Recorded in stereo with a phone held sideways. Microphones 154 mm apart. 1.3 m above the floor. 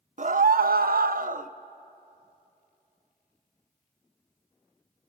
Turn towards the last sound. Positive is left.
turn(degrees=-60)  # may be behind; listen again after turning